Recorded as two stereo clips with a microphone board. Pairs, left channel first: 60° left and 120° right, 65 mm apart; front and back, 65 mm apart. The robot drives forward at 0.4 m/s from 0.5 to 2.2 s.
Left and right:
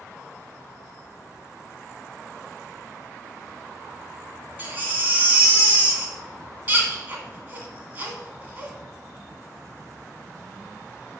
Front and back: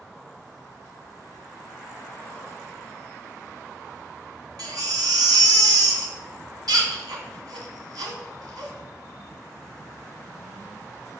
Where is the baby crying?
Straight behind, 2 m.